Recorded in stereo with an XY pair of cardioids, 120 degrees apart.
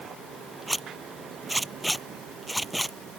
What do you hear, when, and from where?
0.7 s a zipper: 5° right